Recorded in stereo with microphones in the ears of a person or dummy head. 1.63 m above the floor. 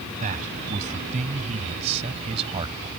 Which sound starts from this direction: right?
A man speaking, at 0.2 s.